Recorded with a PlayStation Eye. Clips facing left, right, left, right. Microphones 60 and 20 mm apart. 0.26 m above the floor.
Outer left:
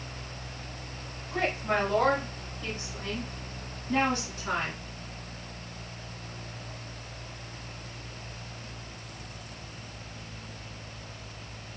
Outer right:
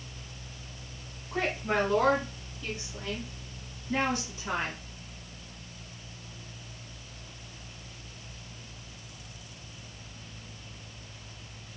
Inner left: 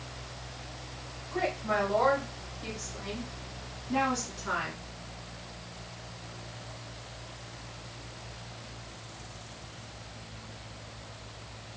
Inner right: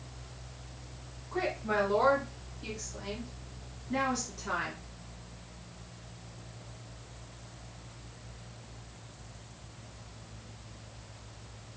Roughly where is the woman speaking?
Centre.